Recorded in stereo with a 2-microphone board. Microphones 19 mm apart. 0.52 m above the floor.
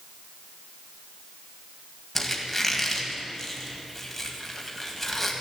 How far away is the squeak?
About 1.9 m.